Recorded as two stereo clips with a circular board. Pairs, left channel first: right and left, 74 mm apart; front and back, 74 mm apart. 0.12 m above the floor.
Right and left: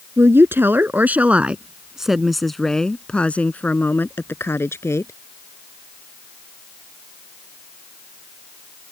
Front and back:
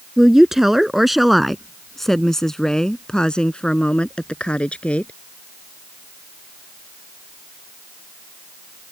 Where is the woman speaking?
100° left; by 5.1 s 65° right.